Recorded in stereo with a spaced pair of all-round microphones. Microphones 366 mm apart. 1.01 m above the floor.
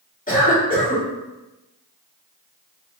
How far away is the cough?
About 1.7 m.